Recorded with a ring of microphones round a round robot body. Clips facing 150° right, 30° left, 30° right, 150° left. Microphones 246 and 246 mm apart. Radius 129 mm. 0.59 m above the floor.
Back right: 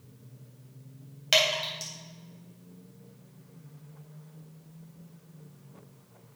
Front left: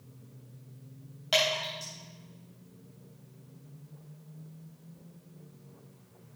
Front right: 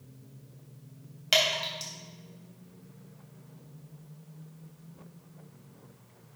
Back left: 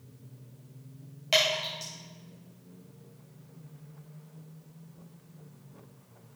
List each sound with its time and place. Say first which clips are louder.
1.3 s dripping: back right 1 dB, back left 1 dB; 95° right, 3.5 m